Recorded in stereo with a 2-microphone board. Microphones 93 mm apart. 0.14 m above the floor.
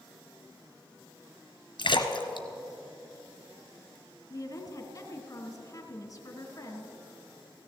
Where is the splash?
60° left (ahead or behind), 1.1 m.